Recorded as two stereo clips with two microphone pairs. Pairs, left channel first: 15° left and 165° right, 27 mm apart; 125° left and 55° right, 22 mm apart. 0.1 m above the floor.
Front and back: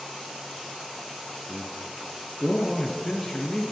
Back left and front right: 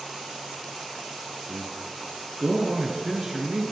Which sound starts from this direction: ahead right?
A man speaking, at 1.5 s.